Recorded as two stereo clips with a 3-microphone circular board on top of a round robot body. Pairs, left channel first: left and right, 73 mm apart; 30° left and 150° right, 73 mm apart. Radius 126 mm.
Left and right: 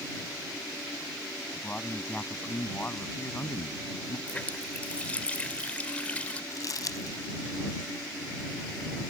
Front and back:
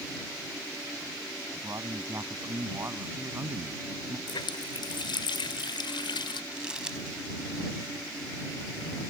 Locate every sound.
1.5 s a man speaking: 165° left; by 4.2 s 145° left
4.3 s a running tap: 15° left
6.5 s crumpling: 130° left